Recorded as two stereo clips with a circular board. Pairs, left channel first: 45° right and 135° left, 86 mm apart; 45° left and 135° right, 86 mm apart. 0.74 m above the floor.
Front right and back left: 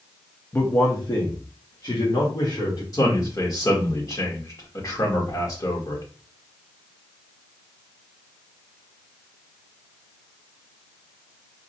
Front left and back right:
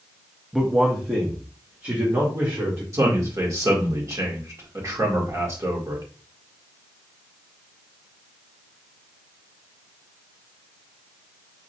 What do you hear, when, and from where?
0.5 s a man speaking: 50° right, 0.7 m; by 2.8 s 80° right, 2.5 m
2.9 s a man speaking: 85° right, 1.9 m